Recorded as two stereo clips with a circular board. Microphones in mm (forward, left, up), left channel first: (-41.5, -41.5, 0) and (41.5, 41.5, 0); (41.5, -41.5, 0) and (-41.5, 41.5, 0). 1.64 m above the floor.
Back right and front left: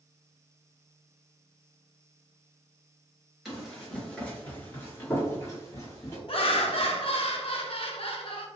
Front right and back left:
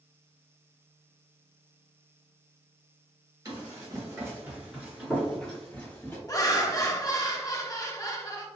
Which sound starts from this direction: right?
Laughter, at 6.3 s.